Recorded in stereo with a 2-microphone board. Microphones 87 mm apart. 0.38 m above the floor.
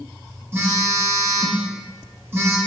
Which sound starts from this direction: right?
A phone buzzing, at 0.5 s.